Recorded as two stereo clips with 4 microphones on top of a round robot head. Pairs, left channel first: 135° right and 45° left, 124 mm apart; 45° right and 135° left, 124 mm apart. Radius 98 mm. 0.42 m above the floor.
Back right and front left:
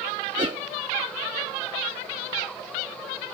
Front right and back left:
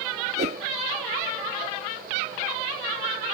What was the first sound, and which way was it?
A whoosh, 100° left.